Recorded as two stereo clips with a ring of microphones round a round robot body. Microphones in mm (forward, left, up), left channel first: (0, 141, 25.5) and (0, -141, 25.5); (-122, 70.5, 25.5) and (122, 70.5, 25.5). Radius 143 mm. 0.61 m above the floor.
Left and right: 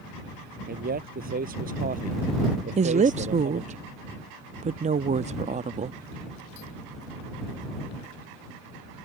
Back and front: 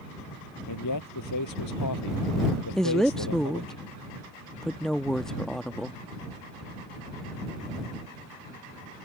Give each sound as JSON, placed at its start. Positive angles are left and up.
{"t": 0.7, "sound": "a man speaking", "azimuth_deg": -150}
{"t": 2.8, "sound": "a woman speaking", "azimuth_deg": -95}